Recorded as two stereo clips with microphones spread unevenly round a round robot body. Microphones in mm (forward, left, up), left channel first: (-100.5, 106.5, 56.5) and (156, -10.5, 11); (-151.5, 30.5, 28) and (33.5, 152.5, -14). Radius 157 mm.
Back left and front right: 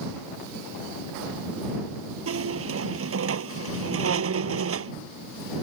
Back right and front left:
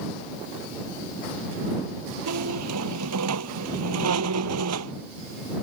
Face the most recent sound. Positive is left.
turn(degrees=15)